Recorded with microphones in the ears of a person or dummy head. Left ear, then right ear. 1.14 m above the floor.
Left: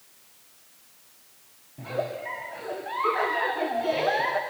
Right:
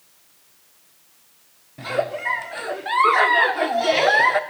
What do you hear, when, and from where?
1.8 s a giggle: 50° right (ahead or behind), 0.9 m